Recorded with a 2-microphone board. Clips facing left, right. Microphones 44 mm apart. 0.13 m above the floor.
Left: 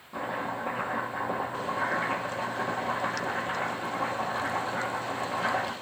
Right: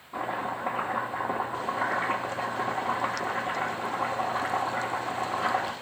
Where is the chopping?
15° right (ahead or behind), 0.8 m.